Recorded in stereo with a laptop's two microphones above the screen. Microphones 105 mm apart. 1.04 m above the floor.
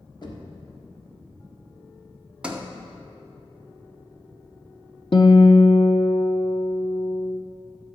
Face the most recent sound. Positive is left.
turn(degrees=50)  # may be behind; listen again after turning